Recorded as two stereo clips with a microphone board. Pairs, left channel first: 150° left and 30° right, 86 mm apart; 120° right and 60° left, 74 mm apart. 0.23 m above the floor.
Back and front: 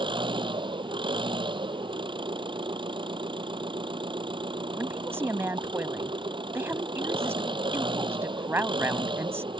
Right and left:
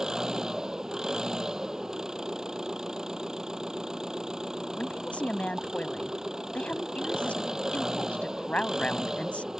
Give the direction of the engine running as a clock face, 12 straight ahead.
1 o'clock.